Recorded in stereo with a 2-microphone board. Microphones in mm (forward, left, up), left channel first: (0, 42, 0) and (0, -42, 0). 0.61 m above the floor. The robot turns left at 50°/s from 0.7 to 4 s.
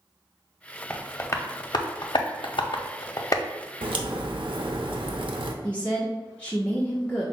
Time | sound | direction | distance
0.9 | tapping | 15° left (ahead or behind) | 0.6 m
3.8 | a crack | 90° right | 0.5 m
5.6 | a woman speaking | 15° left (ahead or behind) | 1.3 m